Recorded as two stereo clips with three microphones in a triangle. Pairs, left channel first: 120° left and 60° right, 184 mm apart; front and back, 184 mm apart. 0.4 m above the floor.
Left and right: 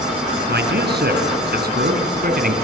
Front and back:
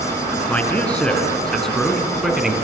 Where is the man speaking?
80° right, 4.5 m; by 2.5 s 95° right, 3.5 m.